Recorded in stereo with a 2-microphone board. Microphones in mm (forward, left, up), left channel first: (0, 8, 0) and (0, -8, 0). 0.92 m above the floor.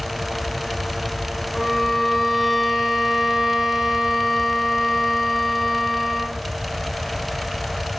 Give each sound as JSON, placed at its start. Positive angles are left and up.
{"t": 1.5, "sound": "a violin", "side_deg": 5, "distance_m": 1.9}